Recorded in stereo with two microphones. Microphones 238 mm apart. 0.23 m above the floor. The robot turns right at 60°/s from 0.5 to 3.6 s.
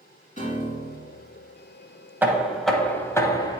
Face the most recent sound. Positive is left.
turn(degrees=20)  # may be behind; listen again after turning